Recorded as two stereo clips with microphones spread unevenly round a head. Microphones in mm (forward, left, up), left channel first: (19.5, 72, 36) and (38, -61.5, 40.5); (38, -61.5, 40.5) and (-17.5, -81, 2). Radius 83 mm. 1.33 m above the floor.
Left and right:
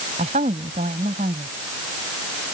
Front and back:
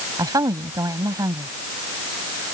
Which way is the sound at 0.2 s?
135° right.